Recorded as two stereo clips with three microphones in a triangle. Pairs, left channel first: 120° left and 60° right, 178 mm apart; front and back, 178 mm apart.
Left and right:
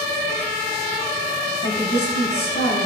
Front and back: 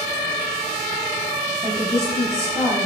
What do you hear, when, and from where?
1.6 s a woman speaking: 105° left, 8 m